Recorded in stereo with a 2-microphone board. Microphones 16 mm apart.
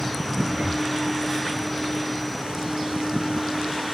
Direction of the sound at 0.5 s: 80° right.